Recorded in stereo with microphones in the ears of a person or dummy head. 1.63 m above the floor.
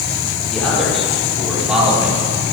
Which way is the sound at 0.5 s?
Centre (ahead or behind).